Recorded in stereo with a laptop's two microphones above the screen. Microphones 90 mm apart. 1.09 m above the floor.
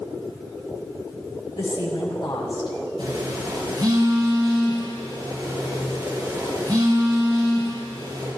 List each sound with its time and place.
1.6 s a woman speaking: 70° left (ahead or behind), 2.5 m
3.0 s a phone buzzing: 70° right (ahead or behind), 6 m